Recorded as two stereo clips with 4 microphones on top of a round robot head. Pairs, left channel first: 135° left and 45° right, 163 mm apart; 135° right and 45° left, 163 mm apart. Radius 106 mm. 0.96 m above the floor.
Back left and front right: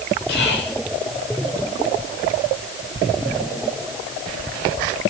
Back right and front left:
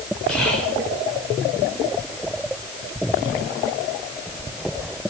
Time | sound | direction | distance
0.3 | whispering | 135° left | 5.5 m